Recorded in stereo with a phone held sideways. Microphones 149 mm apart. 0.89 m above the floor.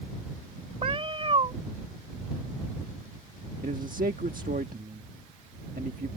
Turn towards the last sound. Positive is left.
turn(degrees=-70)  # may be behind; listen again after turning